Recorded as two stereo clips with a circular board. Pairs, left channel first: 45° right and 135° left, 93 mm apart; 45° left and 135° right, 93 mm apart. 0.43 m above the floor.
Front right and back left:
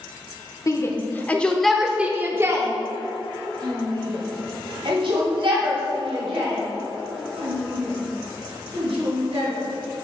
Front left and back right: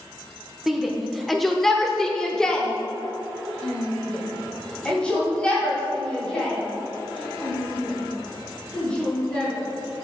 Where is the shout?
50° right, 1.0 m; by 9.5 s 125° left, 4.5 m.